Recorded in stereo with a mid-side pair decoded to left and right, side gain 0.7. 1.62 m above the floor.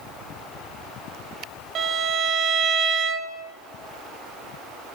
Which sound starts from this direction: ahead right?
A violin, at 1.8 s.